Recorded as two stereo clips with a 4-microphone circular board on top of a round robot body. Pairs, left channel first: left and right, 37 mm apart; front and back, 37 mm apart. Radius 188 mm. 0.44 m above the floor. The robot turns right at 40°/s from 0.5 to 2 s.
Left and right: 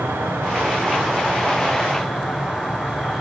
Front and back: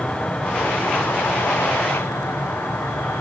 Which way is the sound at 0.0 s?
65° right.